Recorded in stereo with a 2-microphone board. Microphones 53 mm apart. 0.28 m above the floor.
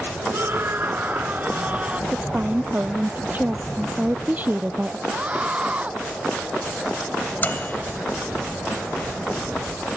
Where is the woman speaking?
30° right (ahead or behind).